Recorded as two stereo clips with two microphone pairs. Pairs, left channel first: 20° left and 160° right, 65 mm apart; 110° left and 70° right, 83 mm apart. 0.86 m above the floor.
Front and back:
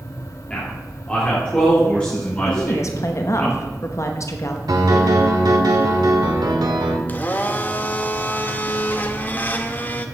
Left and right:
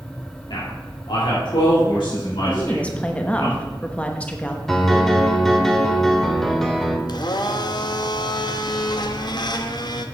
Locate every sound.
0.5 s a man speaking: 95° left, 2.5 m
2.5 s a woman speaking: 40° left, 1.0 m
4.7 s a piano: 165° right, 1.2 m
7.1 s a blender: 85° left, 0.7 m